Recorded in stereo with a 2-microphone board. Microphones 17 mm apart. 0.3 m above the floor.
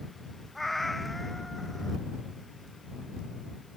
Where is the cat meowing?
10° left (ahead or behind).